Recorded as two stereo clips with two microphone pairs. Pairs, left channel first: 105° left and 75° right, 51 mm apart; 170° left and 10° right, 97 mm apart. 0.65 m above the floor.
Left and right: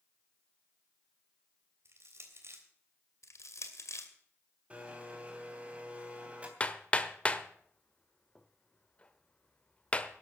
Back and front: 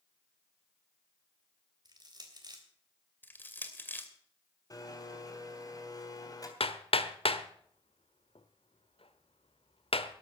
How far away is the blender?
About 3 m.